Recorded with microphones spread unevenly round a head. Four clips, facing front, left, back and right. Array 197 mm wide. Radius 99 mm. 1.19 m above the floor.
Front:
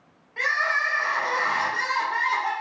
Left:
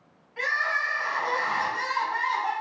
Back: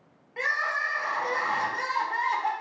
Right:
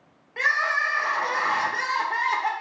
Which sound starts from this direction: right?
Crying, at 0.4 s.